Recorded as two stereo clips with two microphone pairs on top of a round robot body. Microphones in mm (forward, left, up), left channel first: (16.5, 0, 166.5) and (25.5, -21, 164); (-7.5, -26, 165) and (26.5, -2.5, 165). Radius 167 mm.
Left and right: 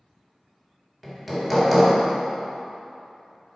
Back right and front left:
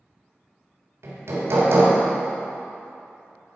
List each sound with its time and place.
1.0 s hammering: 15° left, 1.5 m